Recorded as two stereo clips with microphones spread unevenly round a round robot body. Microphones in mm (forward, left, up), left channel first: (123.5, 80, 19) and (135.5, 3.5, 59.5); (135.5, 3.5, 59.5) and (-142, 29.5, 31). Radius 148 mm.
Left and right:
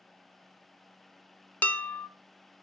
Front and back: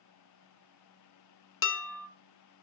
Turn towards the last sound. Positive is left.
turn(degrees=40)